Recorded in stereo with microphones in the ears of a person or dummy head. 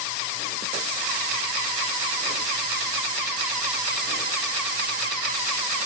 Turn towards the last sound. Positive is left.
No sound to turn to.